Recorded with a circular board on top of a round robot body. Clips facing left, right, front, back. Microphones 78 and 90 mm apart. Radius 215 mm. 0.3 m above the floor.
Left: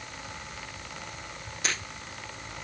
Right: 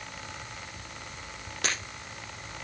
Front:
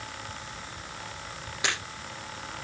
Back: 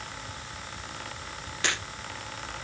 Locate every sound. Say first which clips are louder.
1.6 s breaking glass: even, even; 75° right, 8.5 m